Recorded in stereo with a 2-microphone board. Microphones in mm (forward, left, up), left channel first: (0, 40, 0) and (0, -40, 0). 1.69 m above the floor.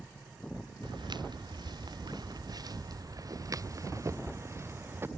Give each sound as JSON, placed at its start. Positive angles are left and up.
{"t": 0.8, "sound": "footsteps", "side_deg": -70}